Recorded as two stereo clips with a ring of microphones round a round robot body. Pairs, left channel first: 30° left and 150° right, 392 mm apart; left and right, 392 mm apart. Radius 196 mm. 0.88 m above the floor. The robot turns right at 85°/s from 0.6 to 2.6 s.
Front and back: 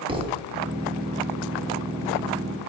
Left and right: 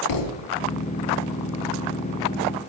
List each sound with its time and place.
0.1 s a thud: 130° left, 1.0 m